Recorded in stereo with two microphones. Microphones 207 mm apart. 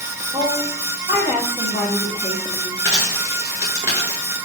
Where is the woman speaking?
20° right (ahead or behind), 0.9 m.